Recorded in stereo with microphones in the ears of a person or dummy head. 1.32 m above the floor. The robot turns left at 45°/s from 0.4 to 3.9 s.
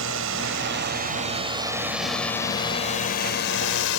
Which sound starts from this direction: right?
A drone, at 0.0 s.